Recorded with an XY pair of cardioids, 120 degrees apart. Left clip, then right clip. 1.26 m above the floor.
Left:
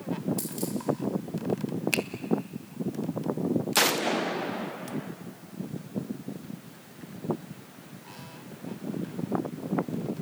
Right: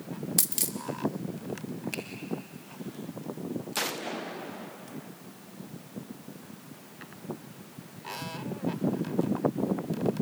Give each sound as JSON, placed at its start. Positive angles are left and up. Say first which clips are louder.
{"t": 0.4, "sound": "a dropped coin", "louder": "right 2 dB", "azimuth_deg": -65, "distance_m": 1.8}
{"t": 1.9, "sound": "a finger snap", "louder": "left 10 dB", "azimuth_deg": 60, "distance_m": 1.3}